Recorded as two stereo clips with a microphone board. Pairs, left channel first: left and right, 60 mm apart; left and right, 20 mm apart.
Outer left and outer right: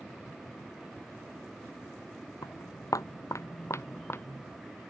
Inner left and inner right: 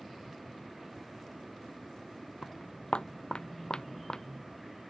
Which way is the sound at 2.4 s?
80° left.